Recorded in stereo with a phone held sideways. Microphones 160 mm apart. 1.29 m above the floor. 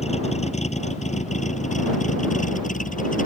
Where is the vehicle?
45° left (ahead or behind); by 3.3 s 60° left (ahead or behind).